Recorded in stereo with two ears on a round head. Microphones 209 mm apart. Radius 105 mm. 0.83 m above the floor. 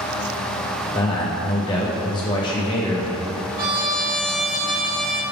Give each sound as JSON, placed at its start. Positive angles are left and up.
{"t": 0.9, "sound": "a man speaking", "side_deg": 20, "distance_m": 0.8}
{"t": 3.6, "sound": "a trumpet", "side_deg": -40, "distance_m": 1.0}